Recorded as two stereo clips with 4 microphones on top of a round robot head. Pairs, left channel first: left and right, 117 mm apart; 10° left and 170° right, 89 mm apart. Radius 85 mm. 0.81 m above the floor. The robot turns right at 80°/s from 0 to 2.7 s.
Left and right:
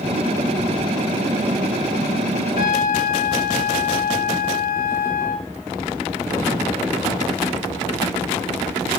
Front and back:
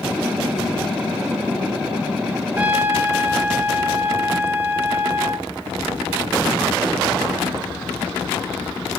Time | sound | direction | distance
2.6 | a trumpet | 115° left | 0.7 m